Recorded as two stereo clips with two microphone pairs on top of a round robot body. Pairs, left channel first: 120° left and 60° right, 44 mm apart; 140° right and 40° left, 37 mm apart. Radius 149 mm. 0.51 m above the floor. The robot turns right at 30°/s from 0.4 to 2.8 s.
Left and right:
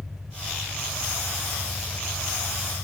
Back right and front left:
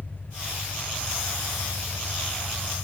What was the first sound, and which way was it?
An engine running, 145° right.